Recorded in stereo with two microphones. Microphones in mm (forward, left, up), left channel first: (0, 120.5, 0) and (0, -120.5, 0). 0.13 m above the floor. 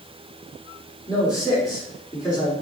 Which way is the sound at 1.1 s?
15° left (ahead or behind).